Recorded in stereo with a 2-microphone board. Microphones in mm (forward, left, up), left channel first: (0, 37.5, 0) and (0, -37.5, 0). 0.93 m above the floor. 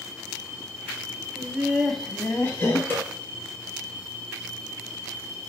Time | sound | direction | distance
1.4 | laughter | 35° right (ahead or behind) | 0.5 m
2.9 | a snare drum | 30° left (ahead or behind) | 1.5 m